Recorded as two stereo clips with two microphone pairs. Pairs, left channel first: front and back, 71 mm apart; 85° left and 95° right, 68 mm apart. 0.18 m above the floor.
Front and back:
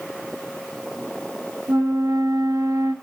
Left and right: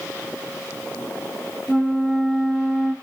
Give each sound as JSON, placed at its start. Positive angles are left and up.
{"t": 1.7, "sound": "a flute", "azimuth_deg": -175, "distance_m": 1.1}